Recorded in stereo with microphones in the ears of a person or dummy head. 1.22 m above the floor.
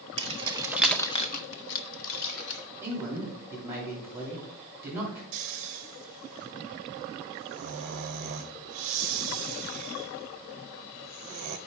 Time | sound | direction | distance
0.2 | keys jangling | 35° right (ahead or behind) | 1.1 m
2.8 | a man speaking | 15° right (ahead or behind) | 3.5 m
5.3 | snoring | 45° right (ahead or behind) | 0.6 m